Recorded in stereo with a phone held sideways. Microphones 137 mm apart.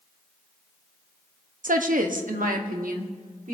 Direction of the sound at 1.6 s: 80° right.